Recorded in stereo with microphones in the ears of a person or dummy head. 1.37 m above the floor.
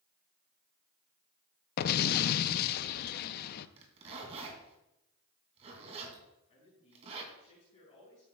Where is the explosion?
50° left (ahead or behind), 0.5 m.